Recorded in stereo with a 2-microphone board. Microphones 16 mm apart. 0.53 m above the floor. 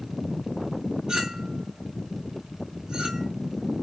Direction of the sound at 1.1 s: 70° right (ahead or behind).